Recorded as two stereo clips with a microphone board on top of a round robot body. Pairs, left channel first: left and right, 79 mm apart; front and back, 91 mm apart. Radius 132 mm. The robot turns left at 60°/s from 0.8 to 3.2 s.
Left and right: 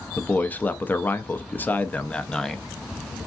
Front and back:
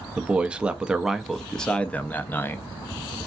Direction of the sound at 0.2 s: 115° left.